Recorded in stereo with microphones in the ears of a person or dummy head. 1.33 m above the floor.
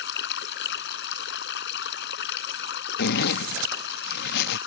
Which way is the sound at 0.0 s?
65° left (ahead or behind).